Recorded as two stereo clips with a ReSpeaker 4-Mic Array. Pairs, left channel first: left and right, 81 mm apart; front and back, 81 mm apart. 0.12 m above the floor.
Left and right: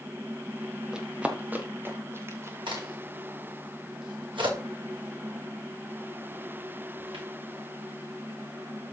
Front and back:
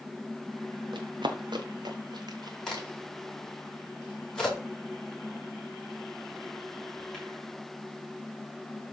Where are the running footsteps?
170° right, 2 m; by 2.9 s 140° right, 3 m.